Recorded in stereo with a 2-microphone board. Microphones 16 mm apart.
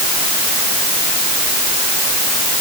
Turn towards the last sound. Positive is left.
No sound to turn to.